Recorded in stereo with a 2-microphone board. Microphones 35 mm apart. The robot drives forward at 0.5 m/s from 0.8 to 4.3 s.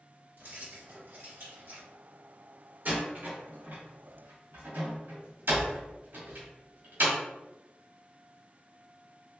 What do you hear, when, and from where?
0.4 s keys jangling: 85° right, 1.6 m; by 1.9 s 75° right (ahead or behind), 1.7 m
2.9 s a door slam: 55° right (ahead or behind), 1.5 m; by 7.2 s 80° right, 1.3 m